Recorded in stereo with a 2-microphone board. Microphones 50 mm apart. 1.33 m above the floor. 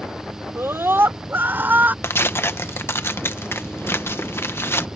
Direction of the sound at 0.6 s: 55° right (ahead or behind).